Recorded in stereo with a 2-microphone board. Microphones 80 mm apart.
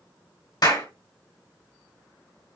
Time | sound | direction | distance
0.6 | a clap | 55° left (ahead or behind) | 2 m